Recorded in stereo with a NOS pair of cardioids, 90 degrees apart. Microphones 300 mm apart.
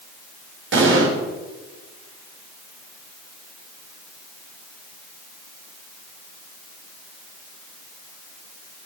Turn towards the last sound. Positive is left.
turn(degrees=-40)